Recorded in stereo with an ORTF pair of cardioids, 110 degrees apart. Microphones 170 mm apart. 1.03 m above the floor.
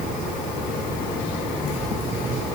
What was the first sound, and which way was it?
Only background noise.